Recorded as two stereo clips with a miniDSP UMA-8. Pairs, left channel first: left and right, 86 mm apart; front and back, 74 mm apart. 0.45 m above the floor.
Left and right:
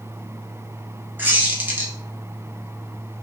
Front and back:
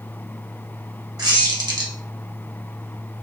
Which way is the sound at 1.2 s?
155° right.